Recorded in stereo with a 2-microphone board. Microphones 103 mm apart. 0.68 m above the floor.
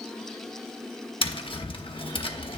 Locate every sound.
1.2 s tapping: 60° left (ahead or behind), 0.7 m